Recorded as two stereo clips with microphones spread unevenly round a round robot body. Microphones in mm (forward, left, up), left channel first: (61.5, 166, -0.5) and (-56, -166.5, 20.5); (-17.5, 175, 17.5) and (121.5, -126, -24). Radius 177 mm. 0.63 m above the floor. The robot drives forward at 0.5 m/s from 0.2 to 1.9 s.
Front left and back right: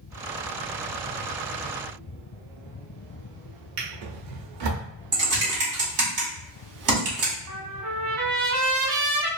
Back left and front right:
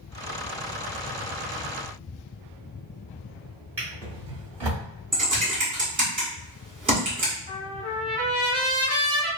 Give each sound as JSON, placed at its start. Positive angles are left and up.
{"t": 3.8, "sound": "a drawer", "azimuth_deg": -160, "distance_m": 1.1}
{"t": 5.1, "sound": "typing on a keyboard", "azimuth_deg": -135, "distance_m": 1.5}
{"t": 7.5, "sound": "a trumpet", "azimuth_deg": -145, "distance_m": 1.3}